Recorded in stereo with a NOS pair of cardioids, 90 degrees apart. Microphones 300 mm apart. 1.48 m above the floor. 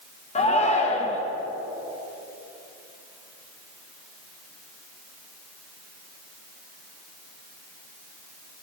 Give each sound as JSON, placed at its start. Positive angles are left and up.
{"t": 0.3, "sound": "a shout", "azimuth_deg": 25, "distance_m": 1.0}